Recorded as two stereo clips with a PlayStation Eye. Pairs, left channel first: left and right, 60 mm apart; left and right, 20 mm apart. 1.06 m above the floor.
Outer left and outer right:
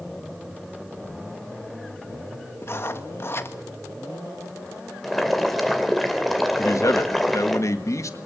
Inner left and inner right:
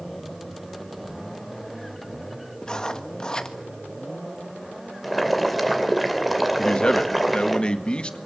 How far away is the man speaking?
About 1.8 m.